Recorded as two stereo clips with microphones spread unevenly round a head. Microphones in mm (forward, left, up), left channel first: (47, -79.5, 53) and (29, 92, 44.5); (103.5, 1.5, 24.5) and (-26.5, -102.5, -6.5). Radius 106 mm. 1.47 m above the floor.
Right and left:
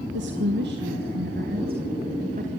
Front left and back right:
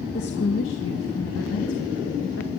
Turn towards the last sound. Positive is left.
turn(degrees=50)